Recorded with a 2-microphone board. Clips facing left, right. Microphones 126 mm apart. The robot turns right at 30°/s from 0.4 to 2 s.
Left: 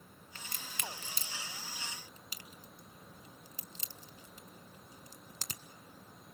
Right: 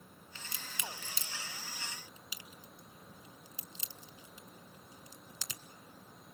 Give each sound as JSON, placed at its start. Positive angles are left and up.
{"t": 0.3, "sound": "a crack", "side_deg": 50, "distance_m": 1.3}